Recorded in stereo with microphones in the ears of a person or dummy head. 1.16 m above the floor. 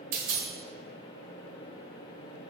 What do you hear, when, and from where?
0.1 s a dropped coin: 45° right (ahead or behind), 1.1 m